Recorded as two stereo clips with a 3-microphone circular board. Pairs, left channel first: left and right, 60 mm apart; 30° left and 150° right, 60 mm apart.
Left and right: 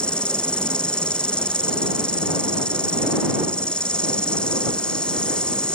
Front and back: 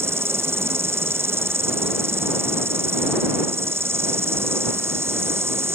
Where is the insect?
165° left.